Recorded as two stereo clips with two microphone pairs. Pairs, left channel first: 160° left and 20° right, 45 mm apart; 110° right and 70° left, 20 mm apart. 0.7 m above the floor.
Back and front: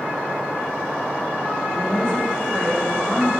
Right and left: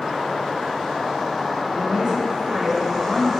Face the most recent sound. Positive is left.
turn(degrees=95)